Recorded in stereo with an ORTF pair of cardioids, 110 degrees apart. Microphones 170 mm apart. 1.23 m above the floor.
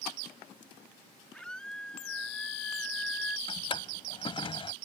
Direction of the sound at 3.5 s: 30° left.